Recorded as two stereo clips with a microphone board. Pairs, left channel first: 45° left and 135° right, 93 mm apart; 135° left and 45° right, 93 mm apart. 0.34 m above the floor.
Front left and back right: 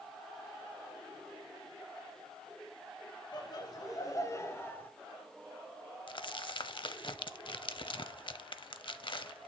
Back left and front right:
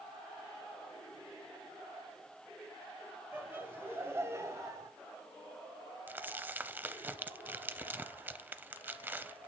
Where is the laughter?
20° left, 2 m; by 4.9 s 15° right, 1.3 m.